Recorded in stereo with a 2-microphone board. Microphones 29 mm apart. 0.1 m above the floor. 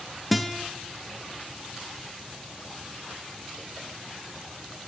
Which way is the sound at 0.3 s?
Centre (ahead or behind).